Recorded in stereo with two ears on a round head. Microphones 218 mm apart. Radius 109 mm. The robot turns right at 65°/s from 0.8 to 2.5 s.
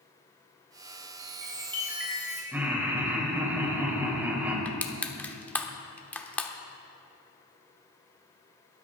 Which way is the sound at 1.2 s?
60° right.